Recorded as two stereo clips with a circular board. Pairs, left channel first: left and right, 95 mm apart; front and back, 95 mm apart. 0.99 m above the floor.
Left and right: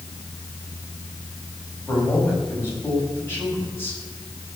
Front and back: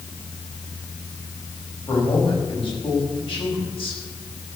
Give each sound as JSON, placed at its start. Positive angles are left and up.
{"t": 1.9, "sound": "a man speaking", "azimuth_deg": 25, "distance_m": 6.0}